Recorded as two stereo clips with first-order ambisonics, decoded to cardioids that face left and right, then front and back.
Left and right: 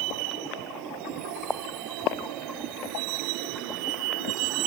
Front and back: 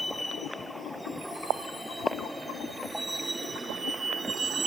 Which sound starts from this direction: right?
A vehicle, at 0.0 s.